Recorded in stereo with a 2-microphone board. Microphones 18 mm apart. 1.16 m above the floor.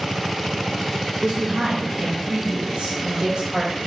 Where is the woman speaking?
70° right (ahead or behind), 1.2 m; by 3.7 s 45° right (ahead or behind), 1.6 m.